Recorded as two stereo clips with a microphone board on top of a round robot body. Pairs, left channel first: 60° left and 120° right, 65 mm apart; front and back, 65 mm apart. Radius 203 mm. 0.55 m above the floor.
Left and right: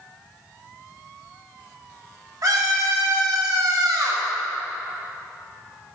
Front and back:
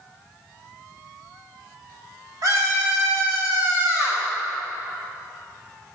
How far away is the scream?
About 3 m.